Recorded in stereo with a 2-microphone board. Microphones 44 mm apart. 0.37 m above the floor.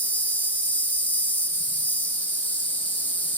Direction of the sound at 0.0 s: 45° left (ahead or behind).